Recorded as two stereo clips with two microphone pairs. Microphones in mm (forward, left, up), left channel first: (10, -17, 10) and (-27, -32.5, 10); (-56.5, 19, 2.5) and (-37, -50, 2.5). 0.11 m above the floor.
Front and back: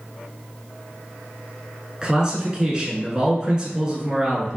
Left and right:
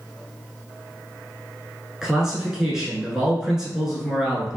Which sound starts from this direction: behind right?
A man speaking, at 2.0 s.